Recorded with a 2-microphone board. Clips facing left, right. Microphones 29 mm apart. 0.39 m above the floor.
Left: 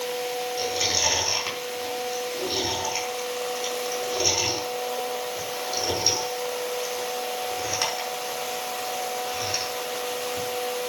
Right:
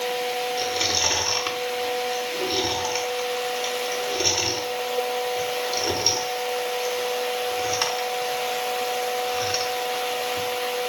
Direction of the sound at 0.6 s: 20° right (ahead or behind).